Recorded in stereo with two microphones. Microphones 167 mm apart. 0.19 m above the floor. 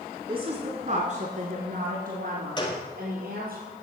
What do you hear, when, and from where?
0.3 s a woman speaking: 30° right (ahead or behind), 1.4 m; by 3.6 s 65° right (ahead or behind), 4 m
2.6 s a gunshot: 30° left (ahead or behind), 2 m